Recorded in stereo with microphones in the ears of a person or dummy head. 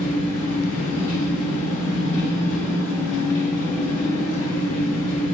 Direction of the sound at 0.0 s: 35° left (ahead or behind).